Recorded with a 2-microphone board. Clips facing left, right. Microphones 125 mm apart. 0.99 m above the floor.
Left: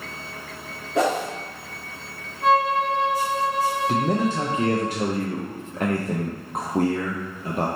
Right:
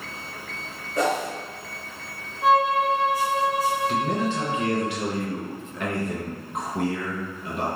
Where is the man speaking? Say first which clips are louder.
Left 2 dB; 40° left (ahead or behind), 0.5 m.